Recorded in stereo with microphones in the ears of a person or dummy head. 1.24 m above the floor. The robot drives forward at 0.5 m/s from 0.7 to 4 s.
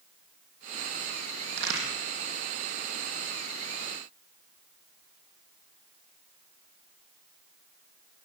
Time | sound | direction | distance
1.5 | a crack | 60° right (ahead or behind) | 7.5 m